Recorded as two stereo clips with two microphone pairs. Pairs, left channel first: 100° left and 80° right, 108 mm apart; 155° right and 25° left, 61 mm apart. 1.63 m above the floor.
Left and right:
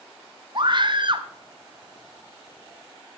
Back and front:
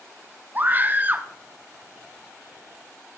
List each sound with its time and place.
0.6 s a scream: 35° right, 1.1 m